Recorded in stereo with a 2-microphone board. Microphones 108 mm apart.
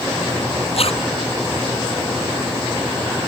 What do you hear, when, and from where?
0.8 s a zipper: 65° left (ahead or behind)